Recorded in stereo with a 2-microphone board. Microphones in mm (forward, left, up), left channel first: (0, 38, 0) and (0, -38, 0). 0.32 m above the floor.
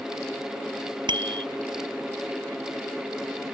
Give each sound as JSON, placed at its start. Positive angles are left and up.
{"t": 1.1, "sound": "a bicycle bell", "side_deg": -85}